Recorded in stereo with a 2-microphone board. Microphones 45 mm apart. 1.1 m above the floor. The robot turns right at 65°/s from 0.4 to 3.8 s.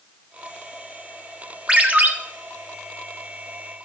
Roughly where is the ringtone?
Centre.